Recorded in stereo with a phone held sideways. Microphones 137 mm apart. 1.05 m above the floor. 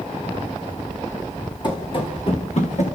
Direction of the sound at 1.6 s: 30° left (ahead or behind).